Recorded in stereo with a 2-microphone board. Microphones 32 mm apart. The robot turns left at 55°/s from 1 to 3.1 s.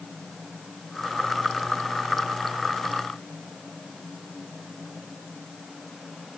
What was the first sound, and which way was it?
Only background noise.